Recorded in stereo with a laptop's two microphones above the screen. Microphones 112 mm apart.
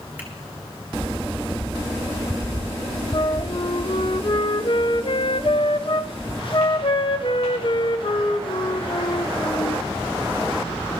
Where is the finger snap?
15° right (ahead or behind), 1.9 m.